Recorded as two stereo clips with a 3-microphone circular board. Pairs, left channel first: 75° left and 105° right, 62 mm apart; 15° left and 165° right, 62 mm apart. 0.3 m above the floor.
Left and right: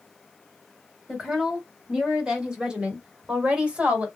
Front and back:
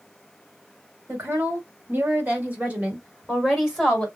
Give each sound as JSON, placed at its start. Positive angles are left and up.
{"t": 1.1, "sound": "a woman speaking", "azimuth_deg": 180, "distance_m": 2.0}